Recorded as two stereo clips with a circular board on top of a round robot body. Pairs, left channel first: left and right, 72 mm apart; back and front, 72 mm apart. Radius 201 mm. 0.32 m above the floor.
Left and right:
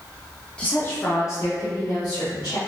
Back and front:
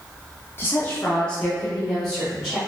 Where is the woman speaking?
155° left, 0.9 m; by 2.6 s 85° left, 1.9 m.